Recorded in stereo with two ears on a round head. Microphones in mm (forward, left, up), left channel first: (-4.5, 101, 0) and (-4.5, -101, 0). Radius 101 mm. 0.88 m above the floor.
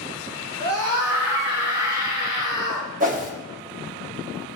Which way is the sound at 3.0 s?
40° right (ahead or behind).